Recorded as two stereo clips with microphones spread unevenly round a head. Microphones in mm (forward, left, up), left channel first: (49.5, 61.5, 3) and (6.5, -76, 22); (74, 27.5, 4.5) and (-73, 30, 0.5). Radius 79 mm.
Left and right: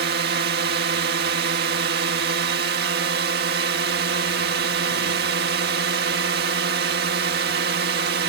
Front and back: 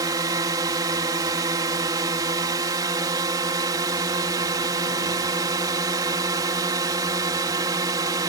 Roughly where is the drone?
Behind right.